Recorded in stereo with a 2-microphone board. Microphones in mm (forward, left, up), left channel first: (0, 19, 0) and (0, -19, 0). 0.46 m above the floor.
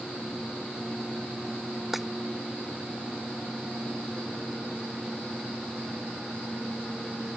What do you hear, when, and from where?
1.9 s breaking glass: 5° right (ahead or behind)